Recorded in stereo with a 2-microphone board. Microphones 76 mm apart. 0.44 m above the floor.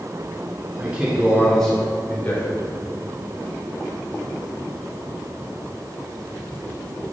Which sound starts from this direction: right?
A man speaking, at 0.8 s.